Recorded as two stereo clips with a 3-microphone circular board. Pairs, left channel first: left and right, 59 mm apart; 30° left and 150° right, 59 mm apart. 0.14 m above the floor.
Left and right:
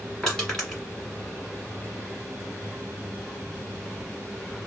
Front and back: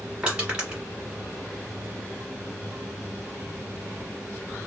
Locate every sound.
0.2 s crushing: 160° left, 1.7 m